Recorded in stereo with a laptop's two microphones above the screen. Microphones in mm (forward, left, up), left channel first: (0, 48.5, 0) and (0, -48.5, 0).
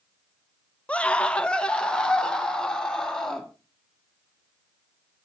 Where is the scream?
15° left (ahead or behind), 0.5 m; by 3.5 s 10° left (ahead or behind), 1.9 m.